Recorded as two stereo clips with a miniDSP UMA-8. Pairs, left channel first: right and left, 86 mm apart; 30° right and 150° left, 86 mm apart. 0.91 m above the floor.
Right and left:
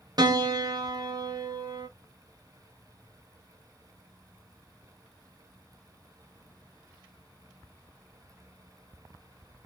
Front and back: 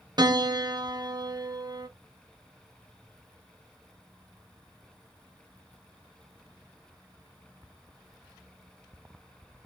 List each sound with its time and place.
0.2 s a piano: 125° left, 0.6 m